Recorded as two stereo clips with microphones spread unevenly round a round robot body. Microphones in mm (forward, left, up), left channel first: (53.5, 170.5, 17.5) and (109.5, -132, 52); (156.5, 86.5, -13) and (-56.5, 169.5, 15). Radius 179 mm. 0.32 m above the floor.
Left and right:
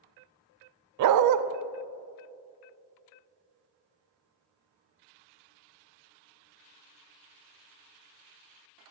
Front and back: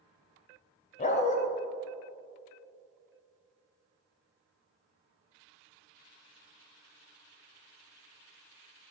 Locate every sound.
1.0 s a dog barking: 70° right, 0.5 m